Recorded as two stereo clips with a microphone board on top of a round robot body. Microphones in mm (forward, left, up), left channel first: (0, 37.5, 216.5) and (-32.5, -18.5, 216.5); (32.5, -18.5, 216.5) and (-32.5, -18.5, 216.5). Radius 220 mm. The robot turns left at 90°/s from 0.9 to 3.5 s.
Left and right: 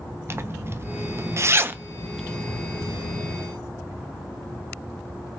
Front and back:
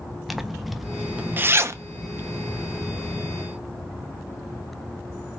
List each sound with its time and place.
0.3 s a zipper: 90° right, 0.5 m; by 3.3 s 50° left, 0.5 m